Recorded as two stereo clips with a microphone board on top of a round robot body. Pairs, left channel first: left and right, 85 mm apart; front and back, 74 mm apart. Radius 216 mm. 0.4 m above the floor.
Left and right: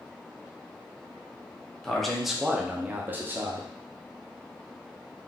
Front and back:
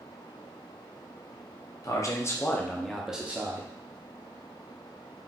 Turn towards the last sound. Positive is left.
turn(degrees=-140)